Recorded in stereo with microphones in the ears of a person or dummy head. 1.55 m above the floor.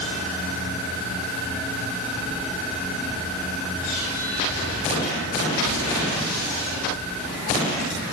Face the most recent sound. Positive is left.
No sound to turn to.